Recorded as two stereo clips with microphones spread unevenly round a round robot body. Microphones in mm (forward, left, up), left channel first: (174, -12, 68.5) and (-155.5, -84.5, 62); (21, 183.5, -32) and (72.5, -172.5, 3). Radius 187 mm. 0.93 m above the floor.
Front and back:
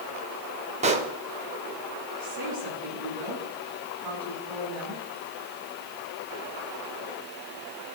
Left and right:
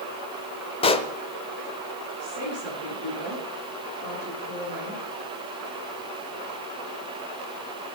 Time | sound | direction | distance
0.8 | a pop | 160° left | 0.6 m
2.2 | a woman speaking | 145° right | 9 m